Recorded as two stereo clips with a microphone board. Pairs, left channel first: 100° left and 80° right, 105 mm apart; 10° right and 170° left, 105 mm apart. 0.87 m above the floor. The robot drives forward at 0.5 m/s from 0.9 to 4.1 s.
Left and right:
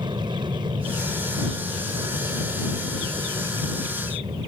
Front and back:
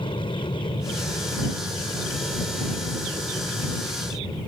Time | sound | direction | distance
0.0 | an aircraft | 40° right | ?